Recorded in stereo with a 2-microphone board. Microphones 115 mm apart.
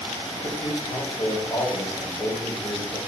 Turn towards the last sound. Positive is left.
turn(degrees=50)  # may be behind; listen again after turning